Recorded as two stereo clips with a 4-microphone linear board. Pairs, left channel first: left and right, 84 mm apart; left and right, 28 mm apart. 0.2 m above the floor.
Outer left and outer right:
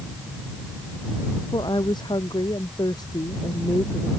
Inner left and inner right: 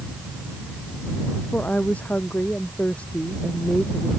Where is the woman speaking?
65° left (ahead or behind); by 4.1 s 45° left (ahead or behind).